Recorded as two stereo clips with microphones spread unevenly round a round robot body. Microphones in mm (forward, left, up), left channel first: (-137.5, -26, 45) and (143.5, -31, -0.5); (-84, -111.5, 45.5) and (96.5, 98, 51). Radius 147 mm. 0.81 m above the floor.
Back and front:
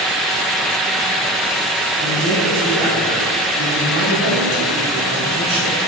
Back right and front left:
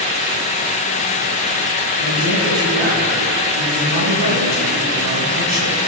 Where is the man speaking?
45° left, 8 m.